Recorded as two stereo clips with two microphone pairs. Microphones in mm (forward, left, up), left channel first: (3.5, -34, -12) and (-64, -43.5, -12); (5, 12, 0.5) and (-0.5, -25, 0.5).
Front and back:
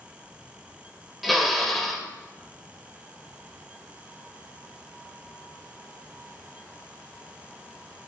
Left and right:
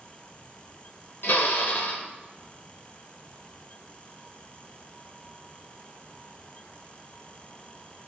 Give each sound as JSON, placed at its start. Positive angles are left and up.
{"t": 1.2, "sound": "a drill", "azimuth_deg": 100, "distance_m": 2.5}